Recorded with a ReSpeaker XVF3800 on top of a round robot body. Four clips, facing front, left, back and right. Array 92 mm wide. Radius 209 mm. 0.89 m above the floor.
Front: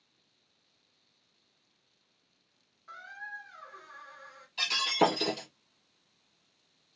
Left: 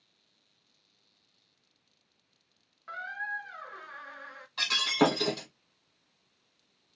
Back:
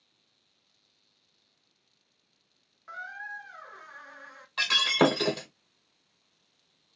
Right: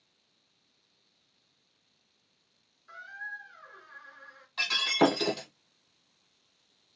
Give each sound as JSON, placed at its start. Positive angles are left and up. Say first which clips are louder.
{"t": 2.9, "sound": "a squeak", "louder": "left 5 dB, back 4 dB", "azimuth_deg": 115, "distance_m": 0.6}
{"t": 4.6, "sound": "breaking glass", "louder": "right 1 dB, back 3 dB", "azimuth_deg": 175, "distance_m": 1.1}